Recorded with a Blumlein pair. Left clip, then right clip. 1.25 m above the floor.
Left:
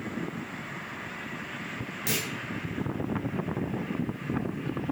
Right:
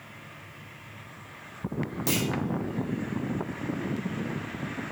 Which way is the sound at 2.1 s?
5° left.